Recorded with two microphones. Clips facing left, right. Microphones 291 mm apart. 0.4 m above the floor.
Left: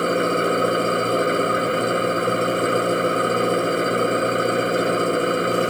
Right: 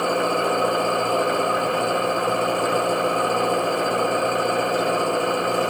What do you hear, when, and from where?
0.0 s an engine running: 20° left (ahead or behind)